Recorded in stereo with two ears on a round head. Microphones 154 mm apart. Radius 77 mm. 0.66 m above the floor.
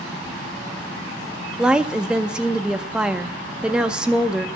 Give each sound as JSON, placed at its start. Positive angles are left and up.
{"t": 1.6, "sound": "a woman speaking", "side_deg": -5, "distance_m": 0.5}